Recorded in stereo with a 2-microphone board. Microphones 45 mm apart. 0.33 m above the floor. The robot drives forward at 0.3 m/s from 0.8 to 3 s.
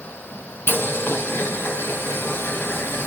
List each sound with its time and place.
0.7 s boiling: 65° left (ahead or behind), 3.5 m